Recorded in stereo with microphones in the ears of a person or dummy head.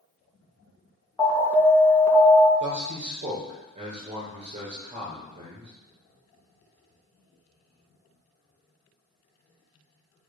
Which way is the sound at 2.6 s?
40° right (ahead or behind).